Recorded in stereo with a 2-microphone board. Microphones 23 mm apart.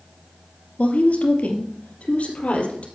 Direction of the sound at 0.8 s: 70° left (ahead or behind).